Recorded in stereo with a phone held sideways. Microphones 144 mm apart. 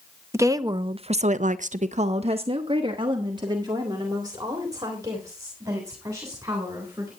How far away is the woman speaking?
About 0.8 m.